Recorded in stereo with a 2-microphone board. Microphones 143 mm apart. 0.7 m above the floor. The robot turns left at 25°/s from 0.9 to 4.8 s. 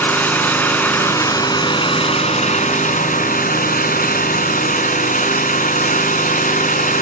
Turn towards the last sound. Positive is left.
turn(degrees=70)